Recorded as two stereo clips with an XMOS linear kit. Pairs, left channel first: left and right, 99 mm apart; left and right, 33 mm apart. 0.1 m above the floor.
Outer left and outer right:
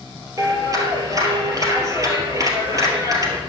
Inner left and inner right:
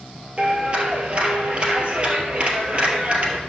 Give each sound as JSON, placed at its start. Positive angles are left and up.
{"t": 0.4, "sound": "a clap", "side_deg": -35, "distance_m": 2.0}